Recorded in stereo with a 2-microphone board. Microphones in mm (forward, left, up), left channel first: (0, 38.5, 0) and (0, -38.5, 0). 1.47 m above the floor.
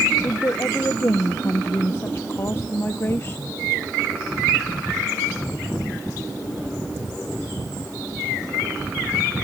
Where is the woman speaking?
35° left (ahead or behind).